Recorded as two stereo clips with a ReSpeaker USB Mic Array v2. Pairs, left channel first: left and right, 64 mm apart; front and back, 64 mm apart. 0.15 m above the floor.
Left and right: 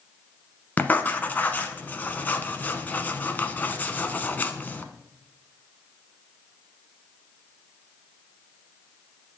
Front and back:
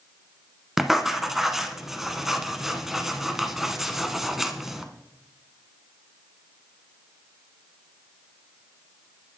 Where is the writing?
100° left, 0.7 m.